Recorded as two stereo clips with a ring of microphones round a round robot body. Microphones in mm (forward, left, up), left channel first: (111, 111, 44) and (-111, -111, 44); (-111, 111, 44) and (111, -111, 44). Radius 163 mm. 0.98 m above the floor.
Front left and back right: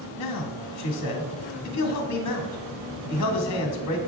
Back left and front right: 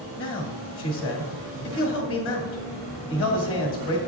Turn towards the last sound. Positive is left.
turn(degrees=85)